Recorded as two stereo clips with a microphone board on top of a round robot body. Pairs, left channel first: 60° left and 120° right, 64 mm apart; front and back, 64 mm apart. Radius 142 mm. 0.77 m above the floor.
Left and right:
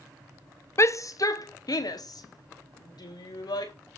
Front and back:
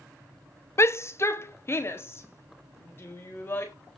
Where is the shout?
30° left, 1.2 m; by 3.7 s 55° left, 5 m.